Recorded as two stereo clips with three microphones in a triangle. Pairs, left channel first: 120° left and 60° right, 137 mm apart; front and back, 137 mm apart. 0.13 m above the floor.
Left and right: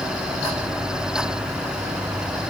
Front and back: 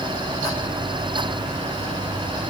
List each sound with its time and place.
Only background noise.